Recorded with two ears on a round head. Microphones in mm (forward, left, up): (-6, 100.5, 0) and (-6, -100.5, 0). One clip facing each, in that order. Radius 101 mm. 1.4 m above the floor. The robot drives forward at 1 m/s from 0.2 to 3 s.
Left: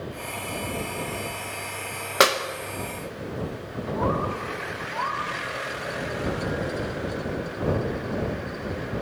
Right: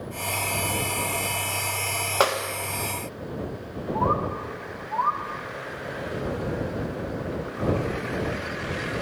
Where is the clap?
25° left (ahead or behind), 1.3 m; by 2.4 s 30° left (ahead or behind), 1.1 m.